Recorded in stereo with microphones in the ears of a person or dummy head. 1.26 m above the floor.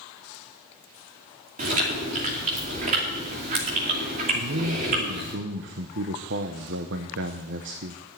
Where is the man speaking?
60° right (ahead or behind), 0.8 m.